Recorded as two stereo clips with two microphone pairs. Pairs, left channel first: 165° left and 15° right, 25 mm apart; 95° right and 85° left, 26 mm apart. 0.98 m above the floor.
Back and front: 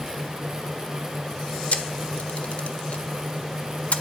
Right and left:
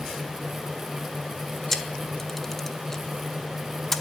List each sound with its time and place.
1.7 s a camera shutter: 175° right, 1.6 m